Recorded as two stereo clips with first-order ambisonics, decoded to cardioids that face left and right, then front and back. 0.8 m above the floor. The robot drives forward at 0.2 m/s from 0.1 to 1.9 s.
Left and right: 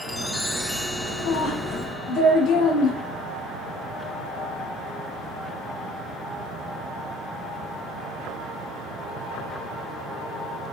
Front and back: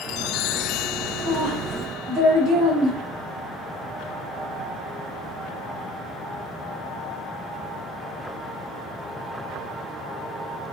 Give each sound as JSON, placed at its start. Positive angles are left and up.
{"t": 1.2, "sound": "a woman speaking", "azimuth_deg": 135, "distance_m": 1.5}